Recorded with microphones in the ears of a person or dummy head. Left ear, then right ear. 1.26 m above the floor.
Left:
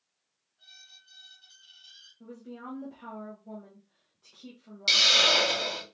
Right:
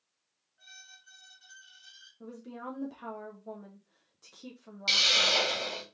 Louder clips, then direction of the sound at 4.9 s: Left 4 dB; 10° left (ahead or behind).